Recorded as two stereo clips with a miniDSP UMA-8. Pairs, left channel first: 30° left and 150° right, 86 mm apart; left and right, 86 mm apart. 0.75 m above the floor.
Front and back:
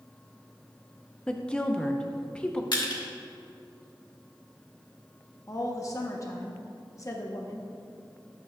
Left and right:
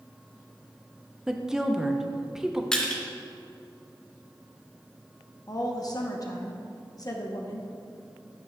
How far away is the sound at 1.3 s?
About 0.6 m.